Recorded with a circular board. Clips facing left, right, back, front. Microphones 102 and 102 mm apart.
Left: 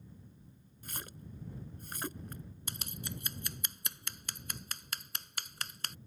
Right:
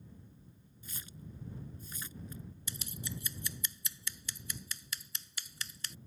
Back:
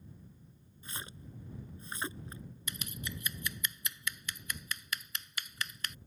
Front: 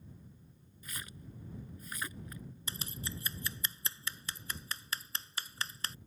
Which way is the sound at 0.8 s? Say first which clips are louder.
Left 3 dB, back 2 dB; 120° left.